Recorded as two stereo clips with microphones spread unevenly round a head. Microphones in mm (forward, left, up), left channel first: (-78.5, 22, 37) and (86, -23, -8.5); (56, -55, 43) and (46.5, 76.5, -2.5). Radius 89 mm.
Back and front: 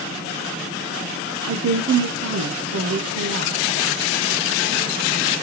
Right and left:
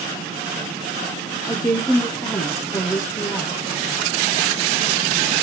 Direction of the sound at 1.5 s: 10° right.